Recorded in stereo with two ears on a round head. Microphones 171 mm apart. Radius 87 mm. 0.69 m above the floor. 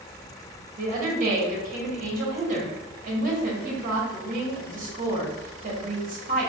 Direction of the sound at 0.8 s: 45° right (ahead or behind).